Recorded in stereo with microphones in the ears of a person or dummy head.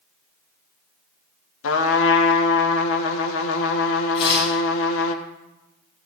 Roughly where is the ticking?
No ticking in this recording.